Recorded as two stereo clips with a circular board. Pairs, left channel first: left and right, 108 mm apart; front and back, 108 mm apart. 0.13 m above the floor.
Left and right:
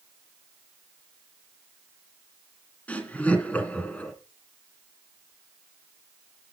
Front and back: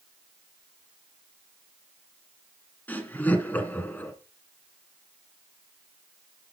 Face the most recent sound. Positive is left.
turn(degrees=40)